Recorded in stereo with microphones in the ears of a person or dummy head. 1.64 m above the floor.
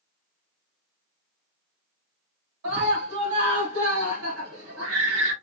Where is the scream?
85° right, 3 m.